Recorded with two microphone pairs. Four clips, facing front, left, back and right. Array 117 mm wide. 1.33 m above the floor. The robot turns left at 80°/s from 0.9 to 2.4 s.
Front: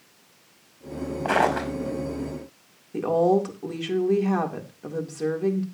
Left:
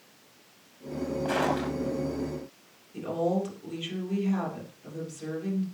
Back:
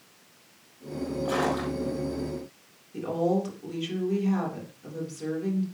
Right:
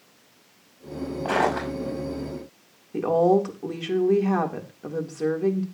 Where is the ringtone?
I don't hear a ringtone.